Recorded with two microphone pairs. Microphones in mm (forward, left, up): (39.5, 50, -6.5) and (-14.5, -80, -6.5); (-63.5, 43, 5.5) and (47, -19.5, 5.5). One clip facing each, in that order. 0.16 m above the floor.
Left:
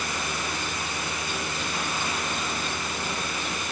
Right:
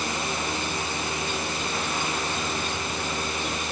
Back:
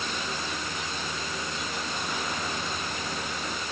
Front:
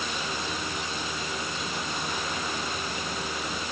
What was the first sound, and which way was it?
Only background noise.